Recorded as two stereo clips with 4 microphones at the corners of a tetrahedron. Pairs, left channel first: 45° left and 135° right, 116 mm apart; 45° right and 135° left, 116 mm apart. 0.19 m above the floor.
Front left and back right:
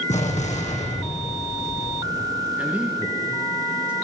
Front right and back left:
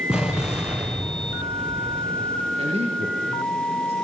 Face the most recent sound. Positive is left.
turn(degrees=145)